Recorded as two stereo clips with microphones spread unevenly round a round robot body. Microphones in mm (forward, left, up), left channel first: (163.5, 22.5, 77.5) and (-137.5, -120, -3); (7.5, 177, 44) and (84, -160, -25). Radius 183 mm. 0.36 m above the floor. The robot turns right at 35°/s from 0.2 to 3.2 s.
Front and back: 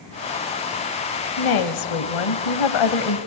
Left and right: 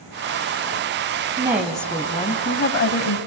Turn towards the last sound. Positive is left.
turn(degrees=60)